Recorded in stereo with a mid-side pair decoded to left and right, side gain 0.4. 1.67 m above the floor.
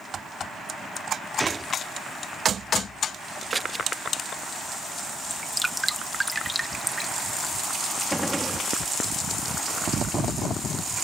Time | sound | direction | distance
1.4 | a gunshot | 15° right | ?
3.5 | scissors | 25° right | ?
5.3 | dripping | 10° right | ?
8.1 | a gunshot | 5° right | ?